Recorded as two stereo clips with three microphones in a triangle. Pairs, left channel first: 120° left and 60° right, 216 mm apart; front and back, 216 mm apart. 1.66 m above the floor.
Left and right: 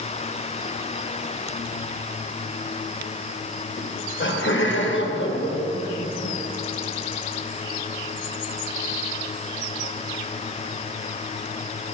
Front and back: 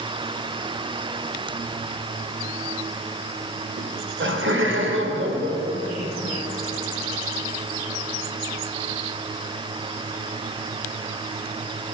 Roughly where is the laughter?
Behind left.